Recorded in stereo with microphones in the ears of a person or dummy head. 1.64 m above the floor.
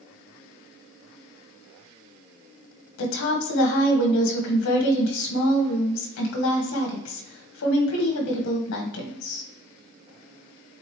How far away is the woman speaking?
About 1.6 m.